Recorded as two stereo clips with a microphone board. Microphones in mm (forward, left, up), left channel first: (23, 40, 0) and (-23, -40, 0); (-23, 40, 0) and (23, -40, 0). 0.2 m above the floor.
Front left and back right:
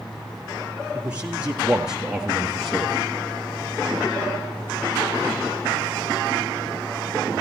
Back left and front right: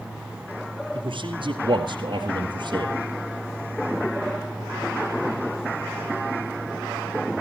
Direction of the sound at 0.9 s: 50° right.